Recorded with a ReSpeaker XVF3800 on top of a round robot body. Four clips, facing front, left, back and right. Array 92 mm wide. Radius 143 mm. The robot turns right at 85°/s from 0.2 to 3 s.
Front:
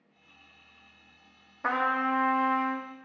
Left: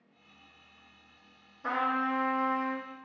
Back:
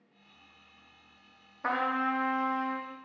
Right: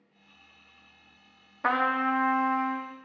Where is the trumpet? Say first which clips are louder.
Right 4 dB, front 2 dB; 80° right, 1.1 m; by 2.8 s 20° left, 1.1 m.